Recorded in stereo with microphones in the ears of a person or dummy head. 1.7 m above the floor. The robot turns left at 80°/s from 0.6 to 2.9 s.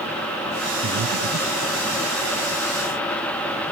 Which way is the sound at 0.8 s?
55° right (ahead or behind).